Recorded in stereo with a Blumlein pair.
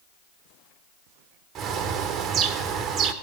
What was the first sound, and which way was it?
A bird, 30° right.